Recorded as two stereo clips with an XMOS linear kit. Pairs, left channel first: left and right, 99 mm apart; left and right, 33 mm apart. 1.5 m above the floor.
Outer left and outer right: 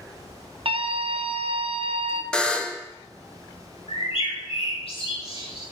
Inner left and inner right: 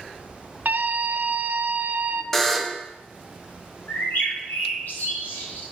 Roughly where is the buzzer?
Centre.